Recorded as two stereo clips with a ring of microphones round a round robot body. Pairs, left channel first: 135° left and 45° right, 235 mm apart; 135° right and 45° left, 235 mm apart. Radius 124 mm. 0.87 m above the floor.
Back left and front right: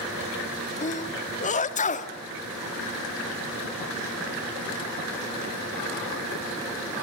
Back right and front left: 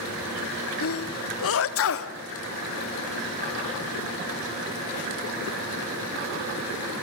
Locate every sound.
0.8 s a sneeze: 165° right, 1.5 m